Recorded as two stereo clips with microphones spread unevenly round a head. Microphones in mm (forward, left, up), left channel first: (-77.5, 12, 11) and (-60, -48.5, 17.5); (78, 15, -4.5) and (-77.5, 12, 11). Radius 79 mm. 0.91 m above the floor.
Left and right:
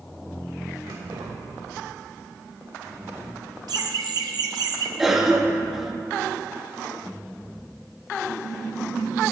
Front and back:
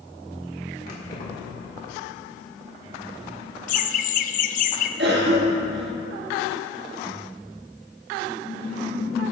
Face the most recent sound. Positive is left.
turn(degrees=-160)